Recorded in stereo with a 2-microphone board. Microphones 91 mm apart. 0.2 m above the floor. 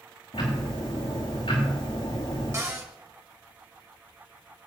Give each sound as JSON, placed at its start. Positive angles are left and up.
{"t": 0.3, "sound": "ticking", "side_deg": 80, "distance_m": 4.0}
{"t": 2.5, "sound": "a cupboard door", "side_deg": -35, "distance_m": 1.8}